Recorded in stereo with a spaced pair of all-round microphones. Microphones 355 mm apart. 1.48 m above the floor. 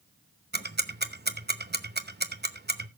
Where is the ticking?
30° right (ahead or behind), 0.8 m.